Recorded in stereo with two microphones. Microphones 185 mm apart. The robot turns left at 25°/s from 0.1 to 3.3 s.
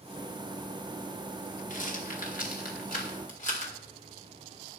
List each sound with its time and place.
1.7 s a rattle: 45° left (ahead or behind), 2.0 m